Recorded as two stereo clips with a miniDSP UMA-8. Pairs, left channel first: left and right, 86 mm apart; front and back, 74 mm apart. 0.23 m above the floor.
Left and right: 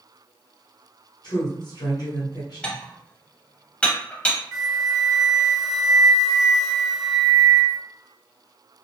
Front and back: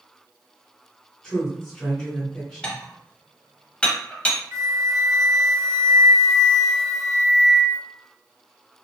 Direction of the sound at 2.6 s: 45° left.